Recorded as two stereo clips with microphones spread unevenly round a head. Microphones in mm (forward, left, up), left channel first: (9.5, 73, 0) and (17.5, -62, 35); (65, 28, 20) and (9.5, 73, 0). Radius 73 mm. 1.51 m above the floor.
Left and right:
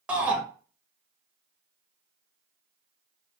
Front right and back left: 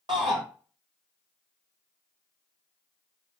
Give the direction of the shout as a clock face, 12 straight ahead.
6 o'clock.